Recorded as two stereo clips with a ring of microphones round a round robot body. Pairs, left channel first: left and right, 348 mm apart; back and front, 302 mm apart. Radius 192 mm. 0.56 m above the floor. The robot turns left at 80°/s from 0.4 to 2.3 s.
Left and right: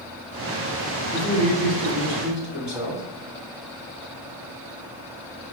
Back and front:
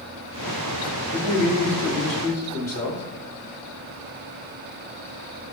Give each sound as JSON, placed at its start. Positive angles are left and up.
{"t": 1.1, "sound": "a man speaking", "azimuth_deg": -45, "distance_m": 1.4}